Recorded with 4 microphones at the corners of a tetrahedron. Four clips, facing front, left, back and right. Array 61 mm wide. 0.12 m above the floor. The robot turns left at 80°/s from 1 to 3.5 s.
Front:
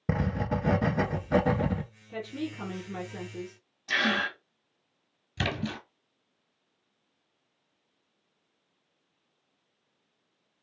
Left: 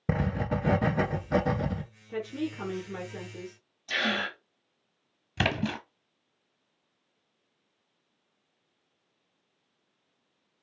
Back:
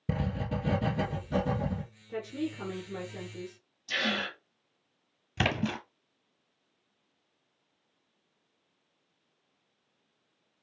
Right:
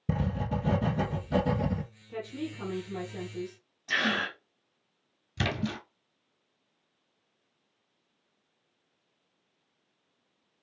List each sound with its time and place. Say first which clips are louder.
0.1 s writing: left 2 dB, front 4 dB; 60° left, 0.6 m; by 1.8 s 10° right, 0.6 m
2.1 s a woman speaking: left 4 dB, back 1 dB; 125° left, 1.4 m; by 3.6 s 10° left, 1.4 m
3.9 s a gasp: right 1 dB, front 4 dB; 30° right, 2.5 m
5.4 s a splash: left 3 dB, back 2 dB; 130° left, 0.9 m